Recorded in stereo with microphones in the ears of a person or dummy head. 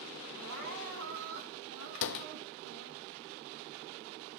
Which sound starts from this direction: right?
Crying, at 0.3 s.